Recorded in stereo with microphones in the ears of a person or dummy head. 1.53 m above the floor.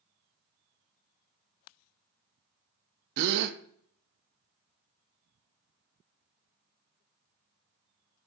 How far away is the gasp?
About 0.5 m.